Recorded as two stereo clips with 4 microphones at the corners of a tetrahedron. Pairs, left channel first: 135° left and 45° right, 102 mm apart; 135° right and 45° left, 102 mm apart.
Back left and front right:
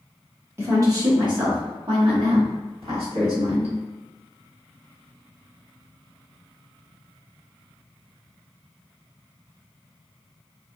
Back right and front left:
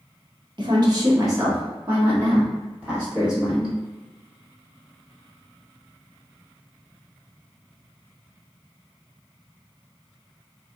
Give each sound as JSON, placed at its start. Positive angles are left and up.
{"t": 0.6, "sound": "a woman speaking", "azimuth_deg": 15, "distance_m": 1.0}